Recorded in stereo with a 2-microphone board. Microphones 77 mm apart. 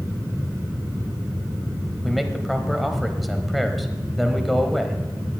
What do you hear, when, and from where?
2.0 s a man speaking: centre (ahead or behind), 1.0 m